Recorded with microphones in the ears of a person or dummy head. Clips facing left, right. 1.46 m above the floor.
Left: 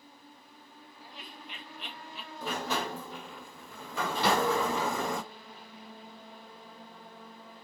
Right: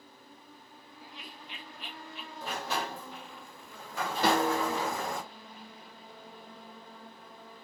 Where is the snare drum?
45° right (ahead or behind), 2.5 m.